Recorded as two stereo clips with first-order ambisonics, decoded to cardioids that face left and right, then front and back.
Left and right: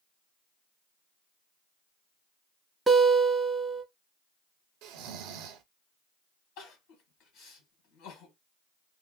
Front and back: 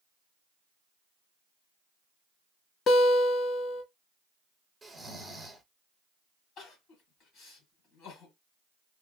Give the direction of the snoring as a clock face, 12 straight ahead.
3 o'clock.